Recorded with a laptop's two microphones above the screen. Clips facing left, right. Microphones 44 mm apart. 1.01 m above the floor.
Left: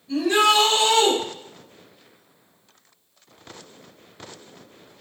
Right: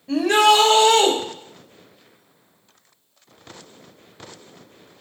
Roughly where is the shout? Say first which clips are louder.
Right 3 dB; right.